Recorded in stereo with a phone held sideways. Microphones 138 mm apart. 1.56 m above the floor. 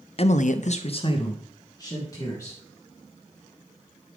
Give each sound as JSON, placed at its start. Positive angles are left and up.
{"t": 0.2, "sound": "a man speaking", "side_deg": 45, "distance_m": 0.6}